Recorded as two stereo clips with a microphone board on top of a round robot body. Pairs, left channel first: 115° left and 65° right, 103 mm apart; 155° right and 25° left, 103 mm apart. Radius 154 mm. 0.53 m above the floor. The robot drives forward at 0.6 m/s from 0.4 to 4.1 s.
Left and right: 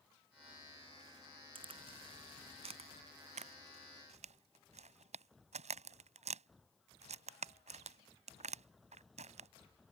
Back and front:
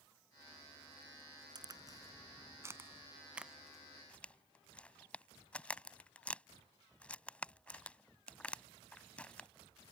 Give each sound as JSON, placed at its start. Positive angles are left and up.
{"t": 1.6, "sound": "a crack", "azimuth_deg": -30}